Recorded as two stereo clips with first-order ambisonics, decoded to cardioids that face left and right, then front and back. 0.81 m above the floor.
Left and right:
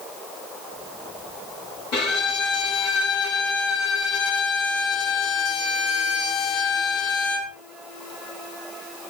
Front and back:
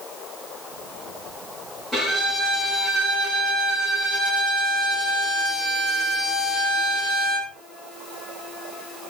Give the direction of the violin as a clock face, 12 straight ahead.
9 o'clock.